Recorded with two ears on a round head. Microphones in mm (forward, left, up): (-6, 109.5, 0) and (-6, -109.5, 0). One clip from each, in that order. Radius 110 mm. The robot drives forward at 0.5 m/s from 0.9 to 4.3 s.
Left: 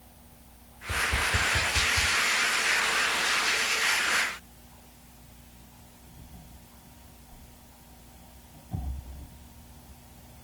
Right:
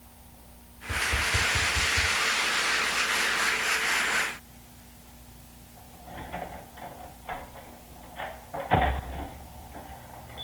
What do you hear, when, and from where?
0.9 s tapping: 80° left, 0.8 m; by 2.1 s 55° left (ahead or behind), 1.0 m